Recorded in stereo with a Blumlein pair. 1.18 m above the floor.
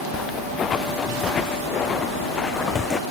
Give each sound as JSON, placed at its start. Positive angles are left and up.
{"t": 0.1, "sound": "footsteps", "azimuth_deg": 25}